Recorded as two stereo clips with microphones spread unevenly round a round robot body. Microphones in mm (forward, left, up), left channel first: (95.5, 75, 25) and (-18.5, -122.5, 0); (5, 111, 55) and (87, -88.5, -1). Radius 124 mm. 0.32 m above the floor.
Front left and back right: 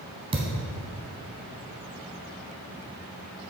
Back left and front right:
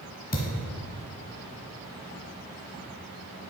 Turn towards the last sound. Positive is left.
turn(degrees=170)